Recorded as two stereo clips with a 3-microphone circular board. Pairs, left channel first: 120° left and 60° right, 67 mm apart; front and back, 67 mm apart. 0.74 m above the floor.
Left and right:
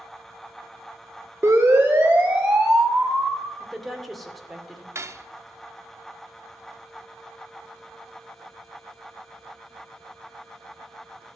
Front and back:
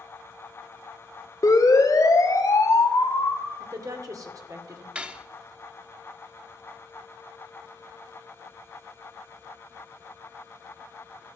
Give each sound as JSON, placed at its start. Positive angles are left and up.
{"t": 1.4, "sound": "a siren", "azimuth_deg": -15, "distance_m": 2.5}
{"t": 3.6, "sound": "a woman speaking", "azimuth_deg": -150, "distance_m": 2.0}
{"t": 5.0, "sound": "cutlery clinking", "azimuth_deg": -105, "distance_m": 0.8}